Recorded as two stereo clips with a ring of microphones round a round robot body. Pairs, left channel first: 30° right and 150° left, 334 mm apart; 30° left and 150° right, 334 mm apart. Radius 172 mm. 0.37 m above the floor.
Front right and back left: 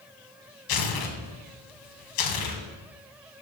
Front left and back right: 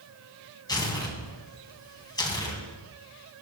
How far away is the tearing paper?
About 2.0 m.